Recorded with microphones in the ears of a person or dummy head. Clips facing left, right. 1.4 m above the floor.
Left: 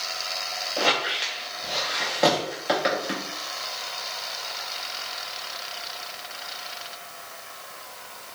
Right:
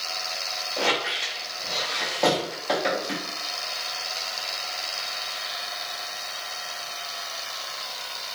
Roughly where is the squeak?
Centre.